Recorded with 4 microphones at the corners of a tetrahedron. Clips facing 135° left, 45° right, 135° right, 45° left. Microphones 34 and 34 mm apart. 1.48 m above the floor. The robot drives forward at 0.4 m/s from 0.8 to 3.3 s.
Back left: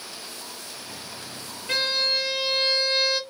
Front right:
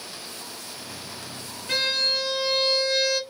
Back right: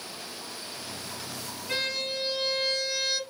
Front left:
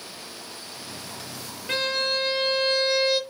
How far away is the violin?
About 1.3 m.